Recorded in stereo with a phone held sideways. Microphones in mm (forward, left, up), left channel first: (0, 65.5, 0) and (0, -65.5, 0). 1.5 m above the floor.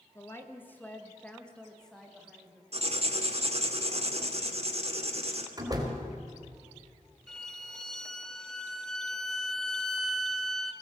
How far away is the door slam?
About 3.5 m.